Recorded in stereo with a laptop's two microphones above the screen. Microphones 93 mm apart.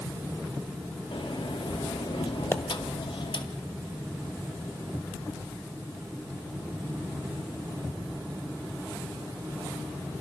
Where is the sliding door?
75° left (ahead or behind), 1.9 m.